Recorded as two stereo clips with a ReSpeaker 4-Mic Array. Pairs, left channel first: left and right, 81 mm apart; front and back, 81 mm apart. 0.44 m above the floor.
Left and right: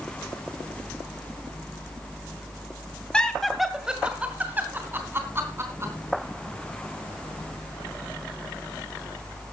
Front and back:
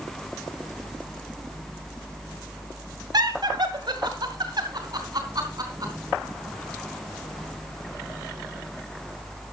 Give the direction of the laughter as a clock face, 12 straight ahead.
6 o'clock.